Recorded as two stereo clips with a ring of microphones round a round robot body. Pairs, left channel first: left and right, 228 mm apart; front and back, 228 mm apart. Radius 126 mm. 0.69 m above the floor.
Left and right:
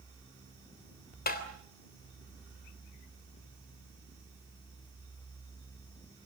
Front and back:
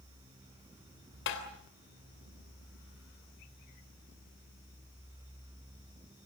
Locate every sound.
1.3 s tapping: 45° left, 3 m